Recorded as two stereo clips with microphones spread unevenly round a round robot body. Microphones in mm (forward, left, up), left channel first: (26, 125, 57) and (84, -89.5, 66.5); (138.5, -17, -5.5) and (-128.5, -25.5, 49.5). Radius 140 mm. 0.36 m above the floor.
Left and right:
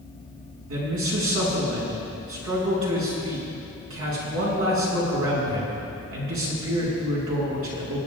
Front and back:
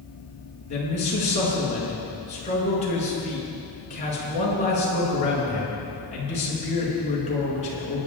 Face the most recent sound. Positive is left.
turn(degrees=-60)